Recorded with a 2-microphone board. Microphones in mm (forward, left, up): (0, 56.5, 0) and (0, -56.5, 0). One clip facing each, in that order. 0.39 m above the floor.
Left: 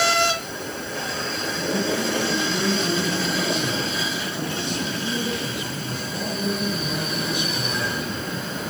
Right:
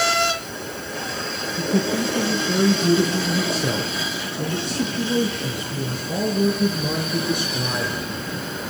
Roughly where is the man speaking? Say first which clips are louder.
Right 3 dB; right.